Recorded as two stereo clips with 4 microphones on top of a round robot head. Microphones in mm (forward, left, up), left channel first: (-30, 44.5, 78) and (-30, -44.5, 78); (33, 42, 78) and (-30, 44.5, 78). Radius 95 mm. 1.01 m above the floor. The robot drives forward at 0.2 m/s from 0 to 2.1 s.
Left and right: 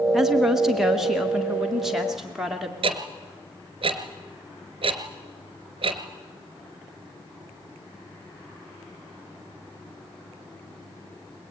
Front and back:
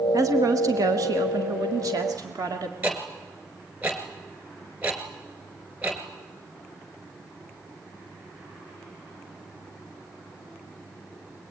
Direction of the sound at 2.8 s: 115° right.